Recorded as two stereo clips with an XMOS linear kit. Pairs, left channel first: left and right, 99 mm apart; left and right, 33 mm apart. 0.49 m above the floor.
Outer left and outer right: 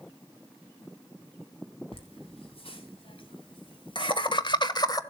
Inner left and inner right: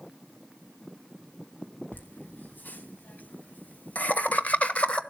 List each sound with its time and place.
1.9 s laughter: 65° left (ahead or behind), 3.5 m; by 5.0 s 35° left (ahead or behind), 1.1 m